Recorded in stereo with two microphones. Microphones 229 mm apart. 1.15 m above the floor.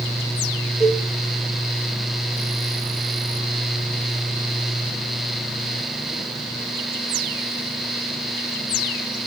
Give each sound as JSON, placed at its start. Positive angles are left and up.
{"t": 0.8, "sound": "a cowbell", "side_deg": -25, "distance_m": 3.5}